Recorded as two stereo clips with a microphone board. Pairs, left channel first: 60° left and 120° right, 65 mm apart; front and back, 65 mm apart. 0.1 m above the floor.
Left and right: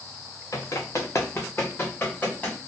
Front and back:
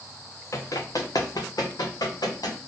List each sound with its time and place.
0.5 s running footsteps: 35° left, 0.8 m; by 2.6 s straight ahead, 1.7 m